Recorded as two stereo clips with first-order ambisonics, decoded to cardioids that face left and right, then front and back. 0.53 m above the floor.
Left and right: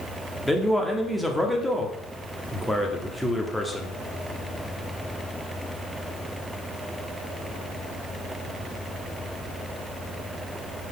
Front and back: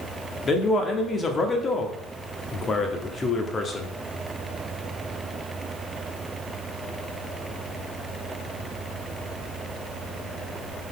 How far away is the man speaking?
About 1.1 m.